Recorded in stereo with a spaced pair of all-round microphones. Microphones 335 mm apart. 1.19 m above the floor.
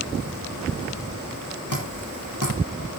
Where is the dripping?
60° left (ahead or behind), 6.5 m.